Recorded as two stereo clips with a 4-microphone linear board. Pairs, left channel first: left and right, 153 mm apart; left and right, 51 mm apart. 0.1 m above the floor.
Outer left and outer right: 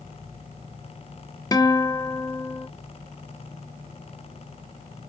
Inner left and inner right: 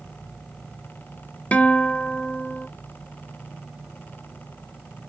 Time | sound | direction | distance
1.5 | a guitar | 25° left (ahead or behind) | 0.5 m